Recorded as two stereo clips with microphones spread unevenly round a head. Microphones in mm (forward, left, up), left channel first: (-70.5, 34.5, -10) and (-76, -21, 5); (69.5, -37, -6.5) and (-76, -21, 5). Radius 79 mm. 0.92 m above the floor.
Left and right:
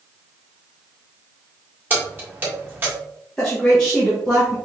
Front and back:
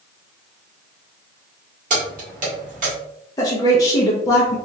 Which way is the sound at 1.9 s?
150° right.